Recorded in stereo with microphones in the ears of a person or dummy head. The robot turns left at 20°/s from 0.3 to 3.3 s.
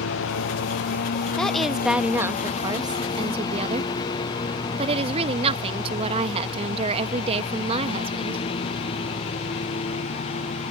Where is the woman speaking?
5° left; by 8.4 s 35° right.